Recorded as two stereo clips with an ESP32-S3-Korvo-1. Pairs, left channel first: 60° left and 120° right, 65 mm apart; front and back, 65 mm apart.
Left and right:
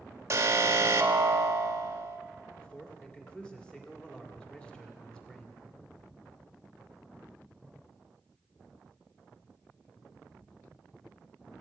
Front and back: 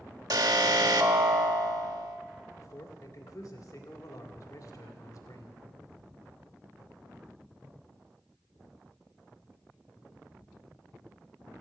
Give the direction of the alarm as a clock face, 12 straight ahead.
6 o'clock.